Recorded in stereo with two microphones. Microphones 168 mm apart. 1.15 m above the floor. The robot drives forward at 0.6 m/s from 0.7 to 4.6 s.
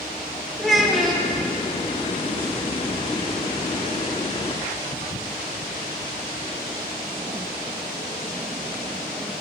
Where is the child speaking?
Centre (ahead or behind), 1.8 m.